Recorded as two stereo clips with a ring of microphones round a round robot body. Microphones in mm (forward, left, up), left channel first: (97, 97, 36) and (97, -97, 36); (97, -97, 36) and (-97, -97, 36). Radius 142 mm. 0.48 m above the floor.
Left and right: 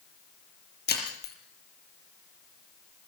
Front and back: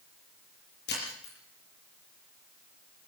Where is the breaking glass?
55° left, 6.5 m.